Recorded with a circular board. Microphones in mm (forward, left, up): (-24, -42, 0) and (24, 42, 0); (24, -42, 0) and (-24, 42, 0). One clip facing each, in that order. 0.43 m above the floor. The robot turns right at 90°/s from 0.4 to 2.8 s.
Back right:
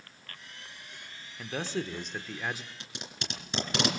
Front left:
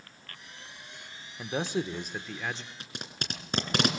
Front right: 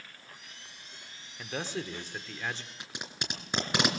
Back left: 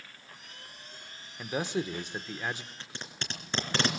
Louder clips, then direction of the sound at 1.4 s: Front left 3 dB, back left 4 dB; 70° left.